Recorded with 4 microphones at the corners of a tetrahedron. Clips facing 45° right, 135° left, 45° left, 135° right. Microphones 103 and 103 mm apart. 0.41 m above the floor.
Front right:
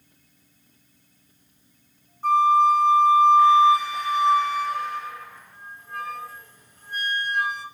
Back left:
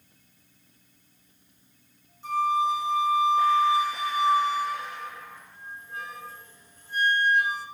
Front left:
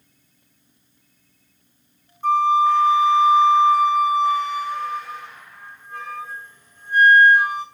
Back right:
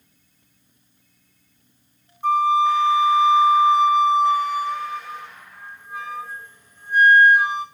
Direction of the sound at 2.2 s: 55° right.